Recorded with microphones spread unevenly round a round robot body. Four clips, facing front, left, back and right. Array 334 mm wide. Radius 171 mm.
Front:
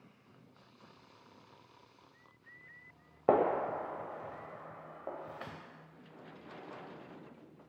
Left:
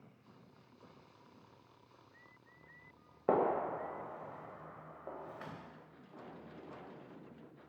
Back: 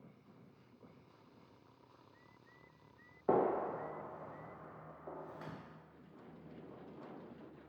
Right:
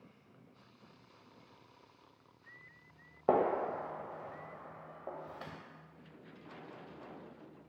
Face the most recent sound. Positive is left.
turn(degrees=-5)